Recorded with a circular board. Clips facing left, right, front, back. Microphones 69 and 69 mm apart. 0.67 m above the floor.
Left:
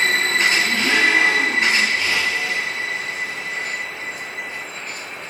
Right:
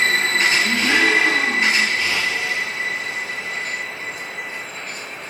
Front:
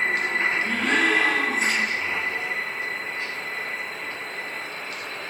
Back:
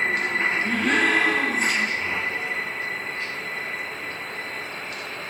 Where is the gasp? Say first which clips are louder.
Right 1 dB, back 2 dB; 95° right, 4.5 m.